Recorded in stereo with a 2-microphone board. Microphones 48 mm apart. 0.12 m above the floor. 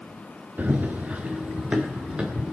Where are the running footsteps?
40° right (ahead or behind), 1.0 m; by 2.5 s 20° right (ahead or behind), 2.5 m.